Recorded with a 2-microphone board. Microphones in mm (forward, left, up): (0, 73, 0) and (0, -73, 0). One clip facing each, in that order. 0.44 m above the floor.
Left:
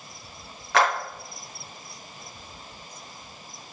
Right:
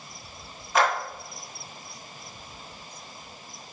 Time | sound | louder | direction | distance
0.7 | a clap | left 1 dB | 75° left (ahead or behind) | 5.5 m